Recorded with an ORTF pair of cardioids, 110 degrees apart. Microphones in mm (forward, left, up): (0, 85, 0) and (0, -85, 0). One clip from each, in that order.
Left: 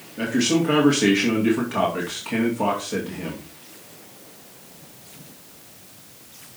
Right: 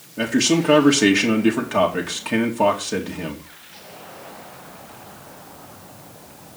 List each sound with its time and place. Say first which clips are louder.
0.2 s a man speaking: right 2 dB; 30° right, 2.5 m